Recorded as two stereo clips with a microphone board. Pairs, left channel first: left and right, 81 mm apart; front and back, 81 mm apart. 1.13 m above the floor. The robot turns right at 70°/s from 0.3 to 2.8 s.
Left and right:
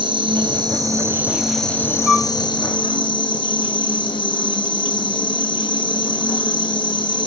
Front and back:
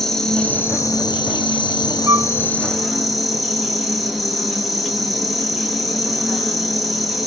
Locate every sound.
0.0 s an insect: 85° right, 0.9 m; by 7.3 s 90° left, 0.9 m
2.1 s a flute: 170° right, 0.7 m; by 2.3 s 155° right, 0.7 m